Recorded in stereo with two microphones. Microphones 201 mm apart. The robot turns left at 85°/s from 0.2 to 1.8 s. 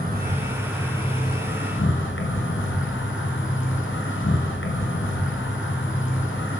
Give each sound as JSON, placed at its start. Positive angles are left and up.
{"t": 0.0, "sound": "an insect", "azimuth_deg": -130, "distance_m": 1.6}